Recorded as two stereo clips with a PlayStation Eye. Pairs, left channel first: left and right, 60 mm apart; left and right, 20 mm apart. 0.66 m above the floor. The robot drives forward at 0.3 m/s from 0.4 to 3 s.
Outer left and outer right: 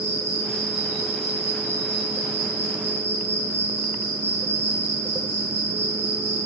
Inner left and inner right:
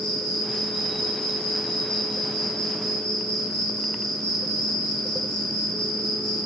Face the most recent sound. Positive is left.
turn(degrees=50)  # may be behind; listen again after turning